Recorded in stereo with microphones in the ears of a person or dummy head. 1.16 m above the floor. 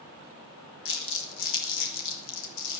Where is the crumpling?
70° left (ahead or behind), 3.5 m.